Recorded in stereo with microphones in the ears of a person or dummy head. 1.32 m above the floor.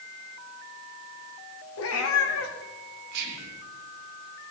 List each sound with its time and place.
1.8 s a cat meowing: 70° left (ahead or behind), 1.5 m
3.1 s whispering: 55° right (ahead or behind), 1.5 m